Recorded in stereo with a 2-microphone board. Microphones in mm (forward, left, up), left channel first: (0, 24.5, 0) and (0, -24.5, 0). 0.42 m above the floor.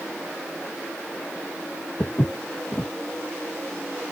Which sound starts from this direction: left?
Footsteps, at 2.0 s.